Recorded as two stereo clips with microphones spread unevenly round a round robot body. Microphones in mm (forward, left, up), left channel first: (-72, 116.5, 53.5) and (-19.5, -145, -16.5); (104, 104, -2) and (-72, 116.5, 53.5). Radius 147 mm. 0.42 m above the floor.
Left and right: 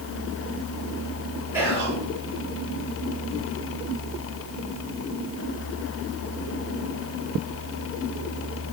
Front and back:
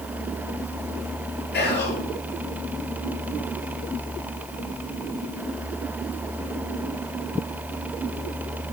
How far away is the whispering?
About 8 m.